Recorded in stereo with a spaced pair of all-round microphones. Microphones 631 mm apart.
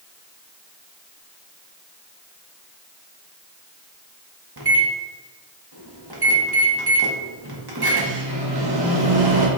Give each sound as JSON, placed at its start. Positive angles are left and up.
{"t": 4.6, "sound": "a microwave", "side_deg": -40, "distance_m": 0.8}